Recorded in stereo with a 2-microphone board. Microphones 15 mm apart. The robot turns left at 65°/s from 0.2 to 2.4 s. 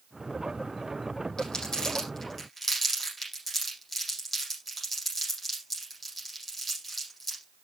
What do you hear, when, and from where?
1.4 s crumpling: 85° left, 9.5 m; by 7.4 s 20° left (ahead or behind), 9.5 m